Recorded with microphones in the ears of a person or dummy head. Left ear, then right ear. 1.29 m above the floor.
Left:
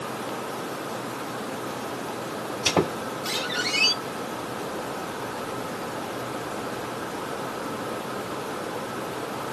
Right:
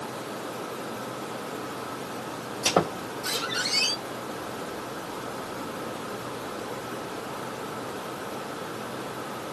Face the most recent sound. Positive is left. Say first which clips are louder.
# even
turn(degrees=-55)  # may be behind; listen again after turning